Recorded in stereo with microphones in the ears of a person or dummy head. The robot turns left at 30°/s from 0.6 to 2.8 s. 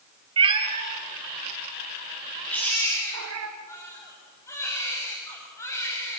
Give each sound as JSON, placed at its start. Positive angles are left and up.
{"t": 0.4, "sound": "a cat meowing", "side_deg": -30, "distance_m": 2.5}
{"t": 2.5, "sound": "a baby crying", "side_deg": 10, "distance_m": 6.5}